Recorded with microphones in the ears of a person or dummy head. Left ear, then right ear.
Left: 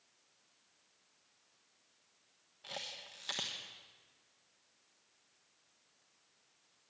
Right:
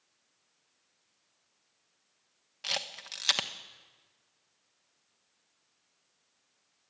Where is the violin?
I don't hear a violin.